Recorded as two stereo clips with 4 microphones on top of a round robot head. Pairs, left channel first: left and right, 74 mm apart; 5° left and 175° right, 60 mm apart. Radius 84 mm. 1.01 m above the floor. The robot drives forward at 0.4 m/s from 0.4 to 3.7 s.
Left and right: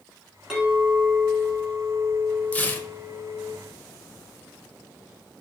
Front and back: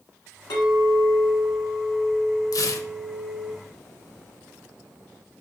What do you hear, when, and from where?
0.5 s a clink: 15° right, 2.5 m; by 3.5 s 25° right, 1.5 m
2.5 s tearing paper: 20° left, 0.8 m; by 2.9 s 25° left, 0.7 m